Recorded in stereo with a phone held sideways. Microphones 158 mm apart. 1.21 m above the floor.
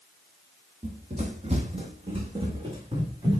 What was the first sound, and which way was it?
Running footsteps, 45° right (ahead or behind).